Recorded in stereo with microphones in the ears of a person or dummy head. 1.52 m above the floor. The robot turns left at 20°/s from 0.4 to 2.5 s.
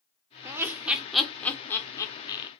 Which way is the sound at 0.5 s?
15° right (ahead or behind).